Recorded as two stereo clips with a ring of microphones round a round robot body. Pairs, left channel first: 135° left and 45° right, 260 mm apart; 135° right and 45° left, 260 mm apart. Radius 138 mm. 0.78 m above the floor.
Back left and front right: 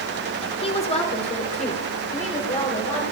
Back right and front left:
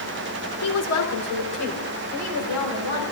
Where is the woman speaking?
155° right, 2.5 m; by 3.0 s 160° right, 5 m.